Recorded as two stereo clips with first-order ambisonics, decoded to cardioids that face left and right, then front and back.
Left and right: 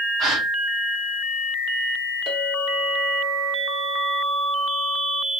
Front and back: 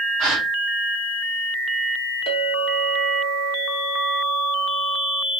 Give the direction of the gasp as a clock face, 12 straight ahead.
5 o'clock.